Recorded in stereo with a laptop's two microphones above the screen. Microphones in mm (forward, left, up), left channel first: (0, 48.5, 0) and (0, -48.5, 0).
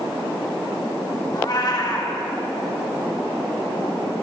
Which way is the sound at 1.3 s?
45° left (ahead or behind).